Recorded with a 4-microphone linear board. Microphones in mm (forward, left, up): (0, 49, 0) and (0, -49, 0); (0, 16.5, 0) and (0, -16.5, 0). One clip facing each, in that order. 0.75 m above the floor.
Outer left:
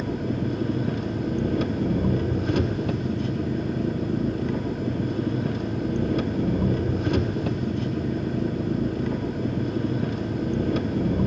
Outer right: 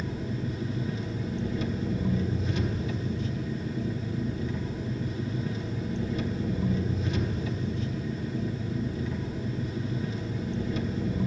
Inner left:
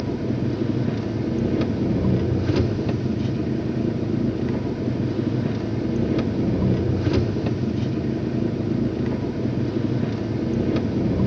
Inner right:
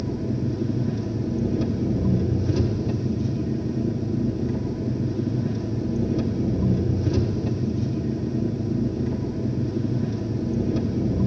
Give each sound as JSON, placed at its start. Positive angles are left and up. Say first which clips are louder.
{"t": 0.0, "sound": "an engine running", "louder": "outer left 7 dB, inner left 2 dB", "side_deg": 60, "distance_m": 0.8}